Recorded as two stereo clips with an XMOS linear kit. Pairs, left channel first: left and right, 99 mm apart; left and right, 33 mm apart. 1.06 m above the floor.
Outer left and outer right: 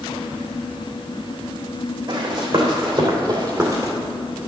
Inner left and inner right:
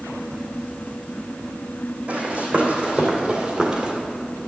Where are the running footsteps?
55° right (ahead or behind), 3.5 m; by 3.9 s 30° right (ahead or behind), 1.8 m.